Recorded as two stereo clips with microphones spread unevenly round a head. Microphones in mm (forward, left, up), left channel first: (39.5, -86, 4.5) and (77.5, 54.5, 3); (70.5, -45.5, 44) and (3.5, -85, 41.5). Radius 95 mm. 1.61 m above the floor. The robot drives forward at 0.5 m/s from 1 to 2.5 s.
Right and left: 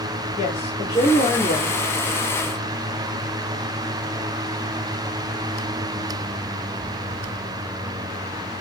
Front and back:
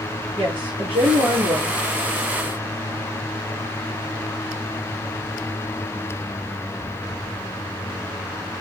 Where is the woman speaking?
165° right, 4 m.